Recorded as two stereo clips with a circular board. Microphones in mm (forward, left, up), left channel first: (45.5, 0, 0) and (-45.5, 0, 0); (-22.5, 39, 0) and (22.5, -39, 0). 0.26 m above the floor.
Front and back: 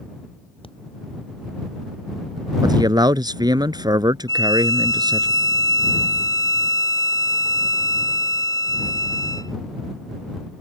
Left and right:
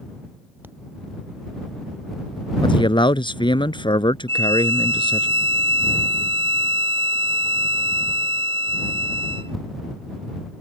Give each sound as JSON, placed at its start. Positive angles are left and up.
{"t": 0.6, "sound": "tapping", "azimuth_deg": 10}
{"t": 2.6, "sound": "a man speaking", "azimuth_deg": 145}
{"t": 4.3, "sound": "a violin", "azimuth_deg": -45}